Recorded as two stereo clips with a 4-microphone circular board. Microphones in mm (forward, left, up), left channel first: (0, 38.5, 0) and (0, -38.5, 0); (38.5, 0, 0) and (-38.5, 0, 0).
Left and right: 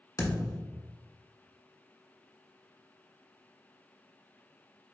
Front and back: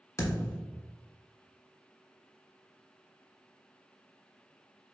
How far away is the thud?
About 1.2 m.